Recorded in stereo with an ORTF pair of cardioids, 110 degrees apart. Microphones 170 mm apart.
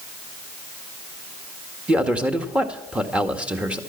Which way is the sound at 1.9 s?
5° right.